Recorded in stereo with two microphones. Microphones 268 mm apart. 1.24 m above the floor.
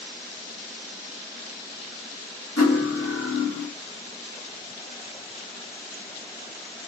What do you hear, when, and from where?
2.6 s cutlery clinking: 75° left (ahead or behind), 1.1 m